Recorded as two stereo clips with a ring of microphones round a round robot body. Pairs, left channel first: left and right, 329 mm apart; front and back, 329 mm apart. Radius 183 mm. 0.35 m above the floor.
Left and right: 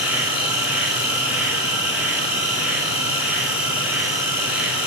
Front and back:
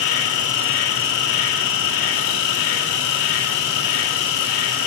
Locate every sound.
0.0 s an insect: 5° right, 2 m